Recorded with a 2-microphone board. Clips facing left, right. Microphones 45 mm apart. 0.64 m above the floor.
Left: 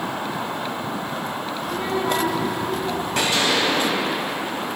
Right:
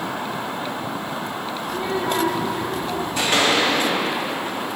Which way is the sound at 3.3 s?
50° right (ahead or behind).